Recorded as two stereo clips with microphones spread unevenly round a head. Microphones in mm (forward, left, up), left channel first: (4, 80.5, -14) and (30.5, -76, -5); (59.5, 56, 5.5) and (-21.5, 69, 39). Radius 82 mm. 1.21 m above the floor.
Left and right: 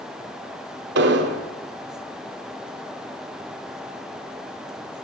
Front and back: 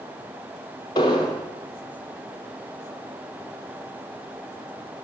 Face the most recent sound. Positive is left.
turn(degrees=-65)